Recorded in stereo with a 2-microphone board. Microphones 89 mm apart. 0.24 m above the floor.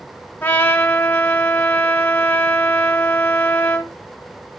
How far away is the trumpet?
About 0.7 m.